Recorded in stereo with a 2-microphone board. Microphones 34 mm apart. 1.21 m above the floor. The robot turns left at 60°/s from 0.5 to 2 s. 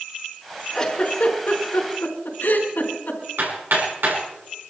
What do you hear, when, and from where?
0.7 s a giggle: 15° left (ahead or behind), 4.5 m; by 3.2 s 85° left, 4.5 m
3.4 s hammering: 80° right, 6.5 m